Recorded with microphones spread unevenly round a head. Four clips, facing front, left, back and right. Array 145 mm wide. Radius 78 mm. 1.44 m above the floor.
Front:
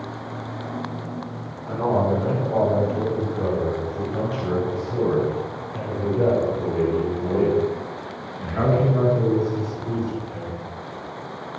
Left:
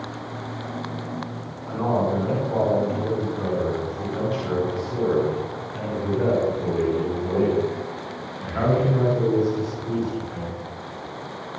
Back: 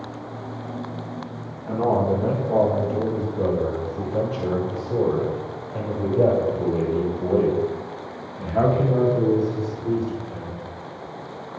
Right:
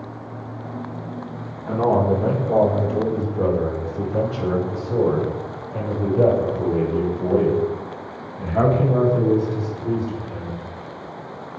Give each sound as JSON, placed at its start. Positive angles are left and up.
{"t": 1.7, "sound": "a man speaking", "azimuth_deg": -120, "distance_m": 5.5}